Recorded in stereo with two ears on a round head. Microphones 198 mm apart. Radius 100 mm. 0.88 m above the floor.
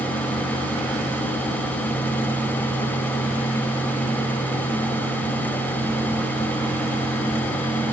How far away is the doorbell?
I don't hear a doorbell.